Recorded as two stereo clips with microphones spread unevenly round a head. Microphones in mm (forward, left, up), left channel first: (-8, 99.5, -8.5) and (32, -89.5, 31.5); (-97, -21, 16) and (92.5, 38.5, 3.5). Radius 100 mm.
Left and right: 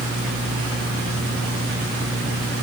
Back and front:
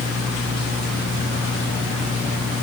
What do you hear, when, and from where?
Only background noise.